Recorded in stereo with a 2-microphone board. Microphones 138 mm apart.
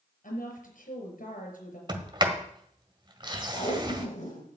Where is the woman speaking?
80° left, 5.5 m.